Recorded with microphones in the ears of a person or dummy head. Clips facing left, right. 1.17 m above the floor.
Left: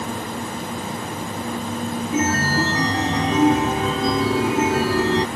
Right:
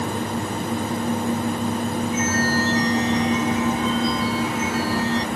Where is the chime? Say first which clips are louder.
Left 3 dB; 50° left (ahead or behind).